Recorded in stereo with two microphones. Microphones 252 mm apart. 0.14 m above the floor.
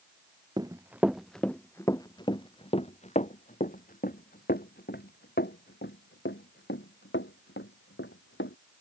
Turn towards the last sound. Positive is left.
turn(degrees=50)  # may be behind; listen again after turning